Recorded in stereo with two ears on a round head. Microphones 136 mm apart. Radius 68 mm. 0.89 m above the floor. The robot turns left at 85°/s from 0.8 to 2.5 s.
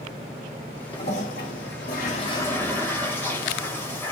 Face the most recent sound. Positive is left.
turn(degrees=15)